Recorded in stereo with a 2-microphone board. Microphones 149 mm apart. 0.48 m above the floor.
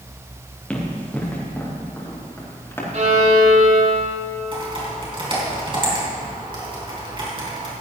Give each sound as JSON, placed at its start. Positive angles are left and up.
{"t": 0.7, "sound": "running footsteps", "side_deg": 10, "distance_m": 4.0}
{"t": 2.9, "sound": "a violin", "side_deg": -55, "distance_m": 2.0}
{"t": 4.5, "sound": "typing on a keyboard", "side_deg": -35, "distance_m": 4.0}